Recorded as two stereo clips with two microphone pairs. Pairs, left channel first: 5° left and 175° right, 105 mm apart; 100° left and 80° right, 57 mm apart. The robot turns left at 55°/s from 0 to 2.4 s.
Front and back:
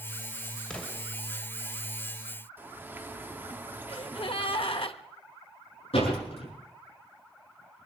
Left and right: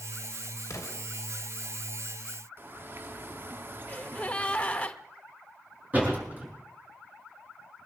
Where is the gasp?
35° left, 0.9 m.